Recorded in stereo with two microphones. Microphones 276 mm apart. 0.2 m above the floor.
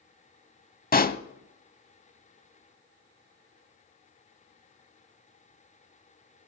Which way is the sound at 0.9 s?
35° left (ahead or behind).